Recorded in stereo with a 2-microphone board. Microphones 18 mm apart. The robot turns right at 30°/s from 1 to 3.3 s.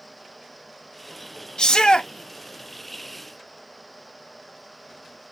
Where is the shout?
50° left (ahead or behind), 0.5 m.